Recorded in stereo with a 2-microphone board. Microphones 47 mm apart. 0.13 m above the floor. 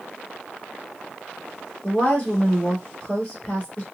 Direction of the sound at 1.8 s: 30° left (ahead or behind).